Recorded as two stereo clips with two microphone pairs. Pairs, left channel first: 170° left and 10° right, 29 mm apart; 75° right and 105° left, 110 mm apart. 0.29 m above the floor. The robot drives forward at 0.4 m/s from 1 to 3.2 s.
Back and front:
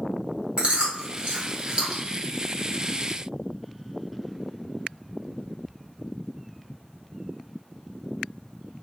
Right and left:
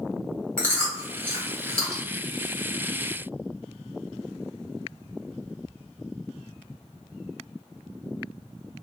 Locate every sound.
0.6 s chewing: straight ahead, 1.4 m; by 2.0 s 5° right, 1.1 m